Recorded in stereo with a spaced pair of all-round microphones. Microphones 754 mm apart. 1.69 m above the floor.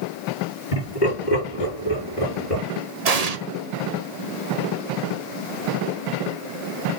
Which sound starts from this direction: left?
Laughter, at 0.7 s.